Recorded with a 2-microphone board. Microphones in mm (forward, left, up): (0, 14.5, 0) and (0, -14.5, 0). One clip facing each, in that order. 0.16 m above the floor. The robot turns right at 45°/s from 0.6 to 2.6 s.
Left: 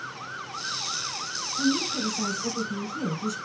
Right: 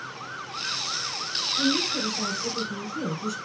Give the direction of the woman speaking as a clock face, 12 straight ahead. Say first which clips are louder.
Even; 2 o'clock.